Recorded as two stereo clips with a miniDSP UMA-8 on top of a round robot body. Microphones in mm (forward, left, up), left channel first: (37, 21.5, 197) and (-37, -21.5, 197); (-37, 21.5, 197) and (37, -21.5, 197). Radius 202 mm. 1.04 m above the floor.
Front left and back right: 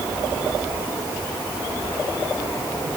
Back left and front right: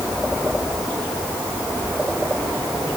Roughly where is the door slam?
I don't hear a door slam.